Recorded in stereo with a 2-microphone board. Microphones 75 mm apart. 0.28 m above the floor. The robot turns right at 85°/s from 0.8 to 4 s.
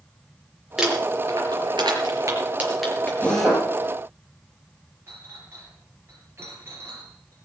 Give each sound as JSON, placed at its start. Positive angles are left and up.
{"t": 0.8, "sound": "crumpling", "side_deg": -5, "distance_m": 4.5}
{"t": 3.2, "sound": "a drill", "azimuth_deg": 160, "distance_m": 6.0}
{"t": 5.1, "sound": "a clink", "side_deg": -35, "distance_m": 5.0}